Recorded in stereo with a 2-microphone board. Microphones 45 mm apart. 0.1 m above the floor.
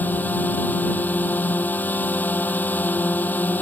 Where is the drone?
45° left (ahead or behind).